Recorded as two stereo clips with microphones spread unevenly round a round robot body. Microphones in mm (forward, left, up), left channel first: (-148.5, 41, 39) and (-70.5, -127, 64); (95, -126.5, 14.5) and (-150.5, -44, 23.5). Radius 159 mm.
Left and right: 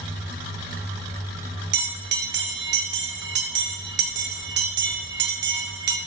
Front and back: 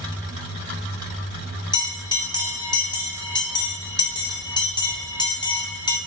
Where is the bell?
90° right, 0.7 m.